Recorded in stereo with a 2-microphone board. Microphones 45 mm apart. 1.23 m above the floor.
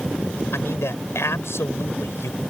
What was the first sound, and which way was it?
A man speaking, 75° left (ahead or behind).